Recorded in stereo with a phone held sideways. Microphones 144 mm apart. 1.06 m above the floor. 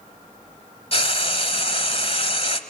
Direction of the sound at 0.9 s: 45° left (ahead or behind).